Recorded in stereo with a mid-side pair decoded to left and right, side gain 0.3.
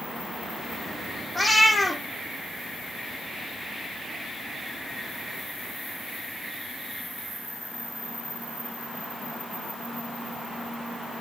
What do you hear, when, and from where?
1.4 s a cat meowing: 25° left, 5 m